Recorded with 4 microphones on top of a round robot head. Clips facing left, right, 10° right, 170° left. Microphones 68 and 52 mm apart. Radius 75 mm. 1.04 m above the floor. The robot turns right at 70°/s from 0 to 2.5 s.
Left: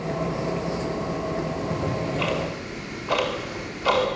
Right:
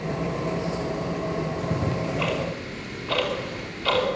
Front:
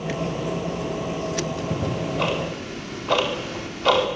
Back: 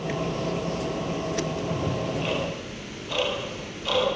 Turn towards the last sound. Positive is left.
turn(degrees=15)